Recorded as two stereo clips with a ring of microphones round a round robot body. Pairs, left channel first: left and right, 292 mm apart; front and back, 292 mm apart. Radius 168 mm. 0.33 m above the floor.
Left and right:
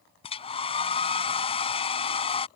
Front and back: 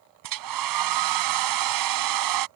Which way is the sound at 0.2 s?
165° left.